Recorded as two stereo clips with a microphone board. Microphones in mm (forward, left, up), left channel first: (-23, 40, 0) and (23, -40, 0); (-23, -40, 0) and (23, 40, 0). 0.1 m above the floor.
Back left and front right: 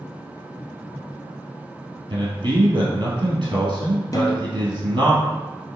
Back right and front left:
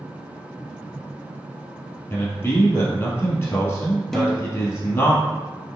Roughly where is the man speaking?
Ahead right.